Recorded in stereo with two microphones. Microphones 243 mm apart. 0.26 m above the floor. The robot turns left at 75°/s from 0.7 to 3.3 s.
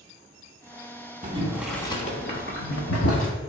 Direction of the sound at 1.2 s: 30° right (ahead or behind).